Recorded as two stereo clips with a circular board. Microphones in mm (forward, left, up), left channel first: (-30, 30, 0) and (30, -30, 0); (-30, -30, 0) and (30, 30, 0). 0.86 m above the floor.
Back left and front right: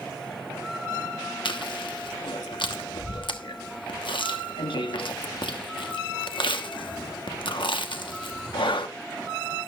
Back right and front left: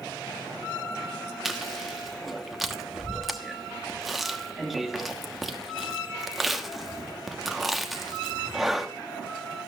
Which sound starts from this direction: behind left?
Chewing, at 1.4 s.